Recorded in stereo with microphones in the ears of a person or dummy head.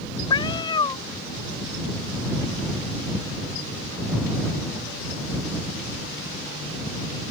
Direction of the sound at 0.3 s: 25° left (ahead or behind).